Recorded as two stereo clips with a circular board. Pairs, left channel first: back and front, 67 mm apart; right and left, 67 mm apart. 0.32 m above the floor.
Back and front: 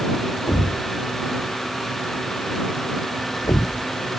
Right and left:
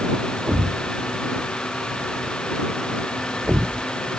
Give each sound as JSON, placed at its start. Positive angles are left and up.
{"t": 0.5, "sound": "a thud", "azimuth_deg": 160}